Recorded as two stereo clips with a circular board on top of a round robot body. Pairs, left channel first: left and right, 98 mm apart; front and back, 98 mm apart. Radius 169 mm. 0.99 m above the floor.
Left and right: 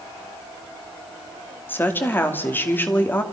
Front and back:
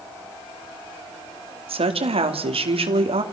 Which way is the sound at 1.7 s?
160° left.